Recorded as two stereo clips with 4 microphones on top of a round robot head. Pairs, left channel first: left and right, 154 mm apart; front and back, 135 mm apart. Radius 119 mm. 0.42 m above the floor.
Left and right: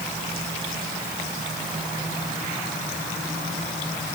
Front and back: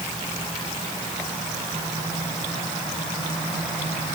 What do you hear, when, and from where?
Only background noise.